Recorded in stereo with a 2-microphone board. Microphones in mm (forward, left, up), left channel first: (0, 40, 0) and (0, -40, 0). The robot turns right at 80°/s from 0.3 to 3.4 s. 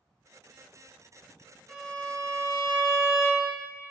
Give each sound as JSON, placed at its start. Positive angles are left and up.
{"t": 1.7, "sound": "a violin", "azimuth_deg": 5, "distance_m": 0.6}